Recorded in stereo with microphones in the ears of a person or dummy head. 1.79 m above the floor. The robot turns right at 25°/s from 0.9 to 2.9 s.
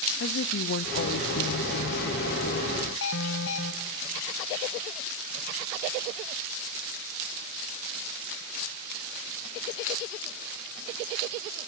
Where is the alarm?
65° left (ahead or behind), 1.5 m.